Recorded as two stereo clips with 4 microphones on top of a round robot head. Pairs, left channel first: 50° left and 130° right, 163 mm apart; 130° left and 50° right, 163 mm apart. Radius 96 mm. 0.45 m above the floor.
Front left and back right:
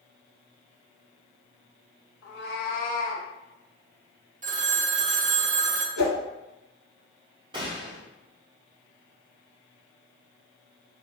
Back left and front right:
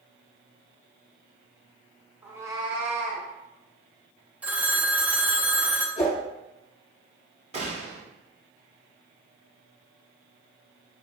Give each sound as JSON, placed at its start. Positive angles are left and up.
{"t": 2.2, "sound": "a cat meowing", "azimuth_deg": 30, "distance_m": 0.9}
{"t": 4.4, "sound": "a phone ringing", "azimuth_deg": -130, "distance_m": 0.6}
{"t": 6.0, "sound": "a whoosh", "azimuth_deg": 75, "distance_m": 1.2}
{"t": 7.5, "sound": "a gunshot", "azimuth_deg": -80, "distance_m": 1.4}